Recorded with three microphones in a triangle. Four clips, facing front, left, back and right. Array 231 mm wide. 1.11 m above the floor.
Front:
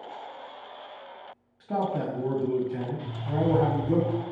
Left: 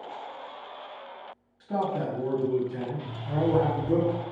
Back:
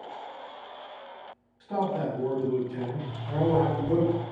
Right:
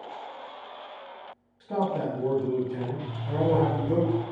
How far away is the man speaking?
About 1.2 m.